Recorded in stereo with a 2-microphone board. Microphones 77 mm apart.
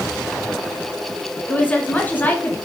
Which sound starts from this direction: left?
A woman speaking, at 1.5 s.